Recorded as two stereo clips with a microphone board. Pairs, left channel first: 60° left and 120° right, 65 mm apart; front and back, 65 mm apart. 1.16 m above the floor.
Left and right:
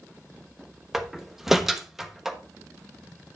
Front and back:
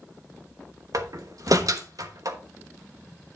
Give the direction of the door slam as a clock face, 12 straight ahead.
7 o'clock.